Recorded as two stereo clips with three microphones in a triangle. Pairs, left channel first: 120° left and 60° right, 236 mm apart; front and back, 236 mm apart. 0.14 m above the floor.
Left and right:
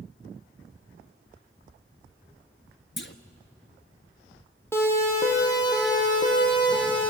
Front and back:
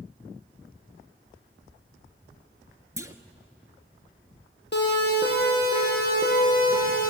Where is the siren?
40° left, 6.5 m; by 7.1 s 50° left, 8 m.